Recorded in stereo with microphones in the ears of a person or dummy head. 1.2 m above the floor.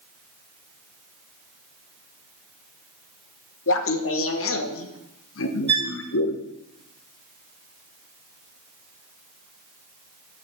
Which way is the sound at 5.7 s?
30° right (ahead or behind).